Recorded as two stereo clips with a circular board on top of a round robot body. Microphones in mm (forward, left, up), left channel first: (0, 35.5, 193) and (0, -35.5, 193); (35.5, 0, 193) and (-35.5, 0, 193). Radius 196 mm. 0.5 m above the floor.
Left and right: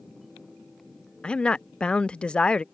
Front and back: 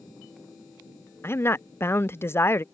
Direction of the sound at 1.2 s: 25° left.